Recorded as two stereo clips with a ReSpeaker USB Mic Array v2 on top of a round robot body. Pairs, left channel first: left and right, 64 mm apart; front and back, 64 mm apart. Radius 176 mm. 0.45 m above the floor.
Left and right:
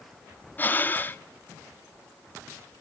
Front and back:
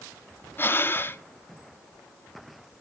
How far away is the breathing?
About 1.2 m.